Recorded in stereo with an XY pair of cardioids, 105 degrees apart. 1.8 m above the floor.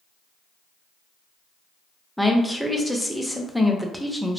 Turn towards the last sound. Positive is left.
turn(degrees=0)